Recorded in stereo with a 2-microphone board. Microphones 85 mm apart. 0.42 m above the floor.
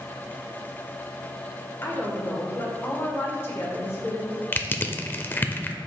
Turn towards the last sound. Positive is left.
turn(degrees=25)  # may be behind; listen again after turning